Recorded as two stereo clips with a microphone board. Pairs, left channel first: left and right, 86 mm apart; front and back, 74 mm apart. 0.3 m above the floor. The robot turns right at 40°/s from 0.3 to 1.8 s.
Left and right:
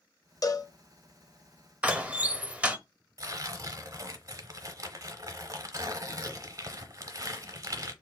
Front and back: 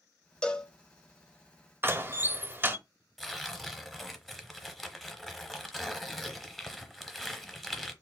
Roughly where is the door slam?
Behind right.